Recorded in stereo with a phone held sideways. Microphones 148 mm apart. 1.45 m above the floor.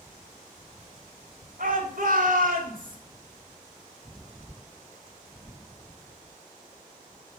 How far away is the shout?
About 5.5 m.